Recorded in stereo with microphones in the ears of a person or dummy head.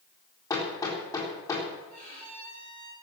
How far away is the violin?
About 9 m.